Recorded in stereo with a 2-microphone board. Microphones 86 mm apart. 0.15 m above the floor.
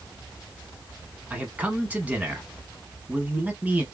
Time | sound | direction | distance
1.3 | a man speaking | 20° right (ahead or behind) | 1.1 m